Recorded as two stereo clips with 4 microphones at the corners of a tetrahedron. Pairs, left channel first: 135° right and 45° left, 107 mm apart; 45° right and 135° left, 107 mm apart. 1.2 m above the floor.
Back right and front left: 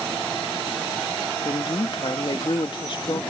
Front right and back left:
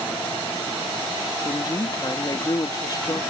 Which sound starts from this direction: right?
A woman speaking, at 1.4 s.